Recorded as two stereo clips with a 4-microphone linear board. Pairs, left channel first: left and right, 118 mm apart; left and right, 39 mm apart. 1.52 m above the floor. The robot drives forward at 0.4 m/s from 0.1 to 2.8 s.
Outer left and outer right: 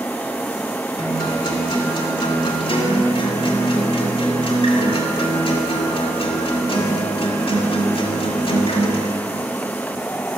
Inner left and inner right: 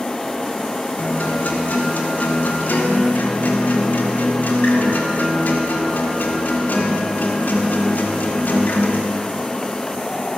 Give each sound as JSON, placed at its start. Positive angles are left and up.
{"t": 1.0, "sound": "a guitar", "side_deg": 40, "distance_m": 2.5}